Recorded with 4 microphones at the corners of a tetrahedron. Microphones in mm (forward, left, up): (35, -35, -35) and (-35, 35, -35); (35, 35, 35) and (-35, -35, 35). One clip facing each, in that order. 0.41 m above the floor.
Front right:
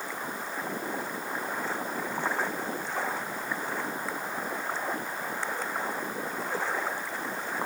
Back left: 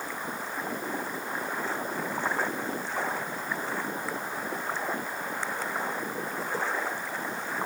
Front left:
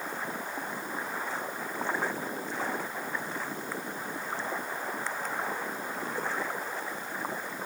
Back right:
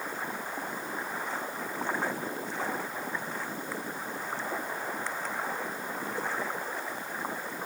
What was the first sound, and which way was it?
Only background noise.